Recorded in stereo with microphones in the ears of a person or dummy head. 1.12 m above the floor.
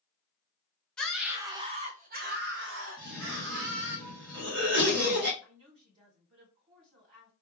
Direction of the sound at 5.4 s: 35° right (ahead or behind).